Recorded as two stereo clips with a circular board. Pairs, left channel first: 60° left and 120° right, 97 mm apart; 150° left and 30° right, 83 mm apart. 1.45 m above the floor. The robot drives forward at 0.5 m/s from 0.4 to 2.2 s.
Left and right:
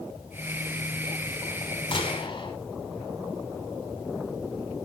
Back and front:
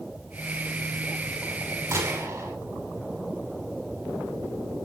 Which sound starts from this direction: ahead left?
A gunshot, at 1.9 s.